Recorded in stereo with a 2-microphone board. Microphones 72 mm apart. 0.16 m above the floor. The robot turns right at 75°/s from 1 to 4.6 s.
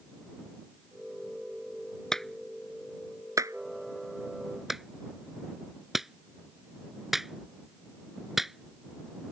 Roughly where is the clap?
Centre.